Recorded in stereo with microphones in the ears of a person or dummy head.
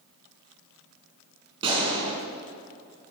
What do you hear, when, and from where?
1.6 s a gunshot: 30° right (ahead or behind), 4.5 m